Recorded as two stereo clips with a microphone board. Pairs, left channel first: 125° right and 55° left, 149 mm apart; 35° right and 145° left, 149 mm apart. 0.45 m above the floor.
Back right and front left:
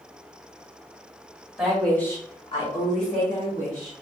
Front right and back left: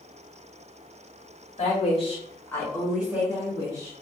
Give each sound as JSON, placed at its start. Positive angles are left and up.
{"t": 1.6, "sound": "a woman speaking", "azimuth_deg": -30, "distance_m": 1.5}